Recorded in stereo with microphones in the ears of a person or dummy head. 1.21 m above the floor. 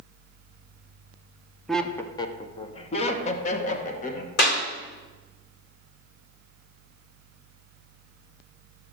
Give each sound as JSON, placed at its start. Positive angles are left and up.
{"t": 1.7, "sound": "laughter", "side_deg": 0, "distance_m": 0.6}
{"t": 4.4, "sound": "a clap", "side_deg": 55, "distance_m": 1.6}